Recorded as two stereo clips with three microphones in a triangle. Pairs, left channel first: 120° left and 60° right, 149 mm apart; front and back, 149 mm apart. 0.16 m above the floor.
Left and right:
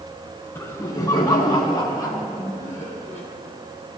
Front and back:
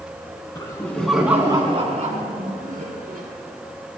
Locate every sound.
0.6 s laughter: 55° left, 1.5 m; by 3.2 s 170° right, 2.5 m